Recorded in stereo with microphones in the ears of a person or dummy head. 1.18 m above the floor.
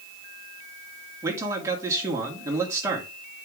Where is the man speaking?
15° right (ahead or behind), 2 m.